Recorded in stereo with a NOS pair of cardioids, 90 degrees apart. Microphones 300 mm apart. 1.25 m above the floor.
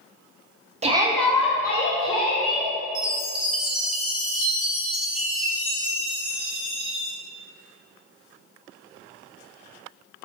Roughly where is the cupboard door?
I don't hear a cupboard door.